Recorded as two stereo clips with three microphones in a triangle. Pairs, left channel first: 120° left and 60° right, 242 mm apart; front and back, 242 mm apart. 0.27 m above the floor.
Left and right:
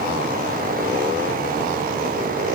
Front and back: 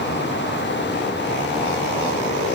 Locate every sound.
Only background noise.